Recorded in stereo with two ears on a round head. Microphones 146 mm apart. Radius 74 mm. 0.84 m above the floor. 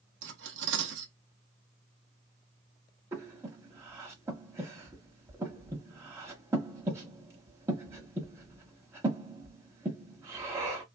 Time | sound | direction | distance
0.2 | cutlery clinking | 75° right (ahead or behind) | 0.7 m
3.1 | breathing | 15° right (ahead or behind) | 1.0 m